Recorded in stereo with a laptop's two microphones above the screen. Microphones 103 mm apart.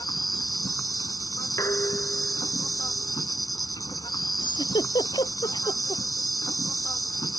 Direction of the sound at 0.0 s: 40° left (ahead or behind).